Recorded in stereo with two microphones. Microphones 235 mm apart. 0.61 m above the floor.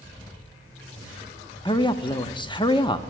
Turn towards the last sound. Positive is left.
turn(degrees=20)  # may be behind; listen again after turning